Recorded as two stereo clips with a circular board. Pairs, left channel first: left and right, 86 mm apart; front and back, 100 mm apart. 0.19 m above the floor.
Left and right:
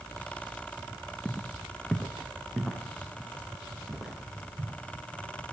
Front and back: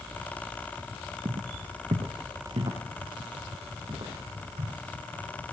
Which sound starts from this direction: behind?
Footsteps, at 1.2 s.